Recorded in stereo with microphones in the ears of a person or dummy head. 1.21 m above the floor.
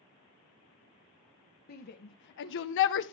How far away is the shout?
About 1.1 m.